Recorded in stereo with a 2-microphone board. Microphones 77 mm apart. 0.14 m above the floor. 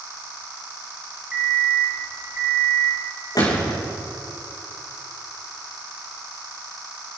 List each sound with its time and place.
1.3 s an alarm clock: 15° right (ahead or behind), 4.5 m
3.4 s a gunshot: 55° left (ahead or behind), 6 m